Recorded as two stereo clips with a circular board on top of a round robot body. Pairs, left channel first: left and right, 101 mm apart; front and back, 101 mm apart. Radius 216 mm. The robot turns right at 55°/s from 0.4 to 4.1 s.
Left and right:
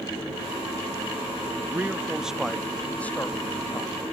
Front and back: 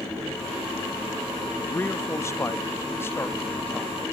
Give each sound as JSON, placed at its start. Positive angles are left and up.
{"t": 1.7, "sound": "a man speaking", "azimuth_deg": -45}